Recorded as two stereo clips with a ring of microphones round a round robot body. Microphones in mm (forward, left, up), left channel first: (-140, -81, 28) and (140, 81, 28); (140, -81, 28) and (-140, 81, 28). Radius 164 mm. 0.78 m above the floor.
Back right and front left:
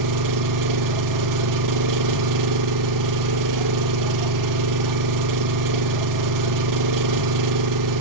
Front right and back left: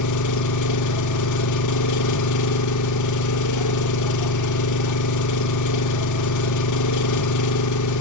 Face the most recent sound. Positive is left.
turn(degrees=5)